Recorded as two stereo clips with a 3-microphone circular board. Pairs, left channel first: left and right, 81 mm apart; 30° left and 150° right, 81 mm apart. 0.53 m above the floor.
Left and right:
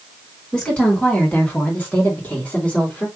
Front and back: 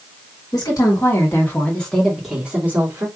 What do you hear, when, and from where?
0.5 s a woman speaking: 15° left, 1.7 m; by 3.1 s 160° left, 1.8 m